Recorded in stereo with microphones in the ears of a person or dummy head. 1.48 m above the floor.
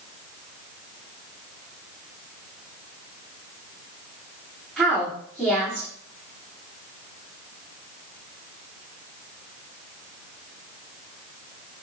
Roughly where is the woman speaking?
Centre.